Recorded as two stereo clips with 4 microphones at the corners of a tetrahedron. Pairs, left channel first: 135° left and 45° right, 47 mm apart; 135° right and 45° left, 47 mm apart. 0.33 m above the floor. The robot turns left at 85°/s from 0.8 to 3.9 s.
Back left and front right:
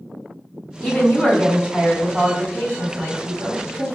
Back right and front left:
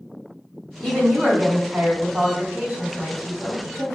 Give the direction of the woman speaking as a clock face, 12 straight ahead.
7 o'clock.